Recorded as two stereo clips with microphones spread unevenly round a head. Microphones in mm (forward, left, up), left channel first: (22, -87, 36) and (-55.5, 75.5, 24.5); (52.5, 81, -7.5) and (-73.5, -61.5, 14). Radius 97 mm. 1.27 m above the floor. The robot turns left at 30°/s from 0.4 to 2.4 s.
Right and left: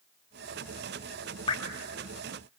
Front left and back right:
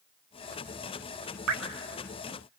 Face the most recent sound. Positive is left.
turn(degrees=-155)